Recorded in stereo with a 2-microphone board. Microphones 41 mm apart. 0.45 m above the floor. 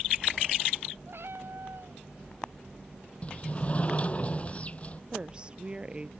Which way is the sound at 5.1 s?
20° right (ahead or behind).